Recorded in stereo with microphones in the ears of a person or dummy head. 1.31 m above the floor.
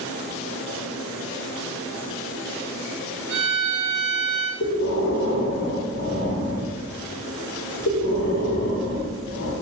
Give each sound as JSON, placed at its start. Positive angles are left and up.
{"t": 3.3, "sound": "a violin", "side_deg": -55, "distance_m": 0.9}
{"t": 4.6, "sound": "breathing", "side_deg": 65, "distance_m": 1.3}